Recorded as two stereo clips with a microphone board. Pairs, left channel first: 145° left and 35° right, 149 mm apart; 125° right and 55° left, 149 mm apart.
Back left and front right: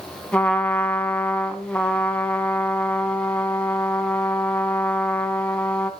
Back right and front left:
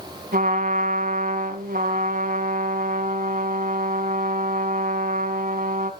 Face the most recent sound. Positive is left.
turn(degrees=65)